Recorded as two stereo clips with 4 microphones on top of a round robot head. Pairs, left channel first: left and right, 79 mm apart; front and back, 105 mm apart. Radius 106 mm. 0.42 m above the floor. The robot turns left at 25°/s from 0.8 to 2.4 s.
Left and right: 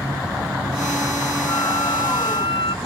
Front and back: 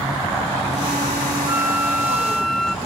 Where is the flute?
110° left; by 2.8 s 90° left.